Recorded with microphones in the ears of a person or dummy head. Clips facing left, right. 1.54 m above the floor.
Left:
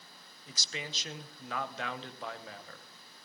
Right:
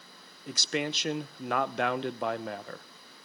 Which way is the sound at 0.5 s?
45° right (ahead or behind).